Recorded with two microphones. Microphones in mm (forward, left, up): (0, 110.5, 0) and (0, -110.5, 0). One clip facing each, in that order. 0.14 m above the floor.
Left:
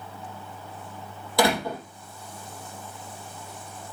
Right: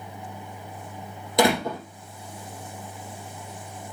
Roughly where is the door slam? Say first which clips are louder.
Right 2 dB; centre.